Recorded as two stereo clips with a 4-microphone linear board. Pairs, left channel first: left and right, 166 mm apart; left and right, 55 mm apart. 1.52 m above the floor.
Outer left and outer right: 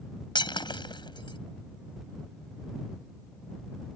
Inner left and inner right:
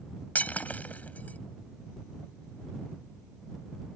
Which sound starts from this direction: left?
Breaking glass, at 0.3 s.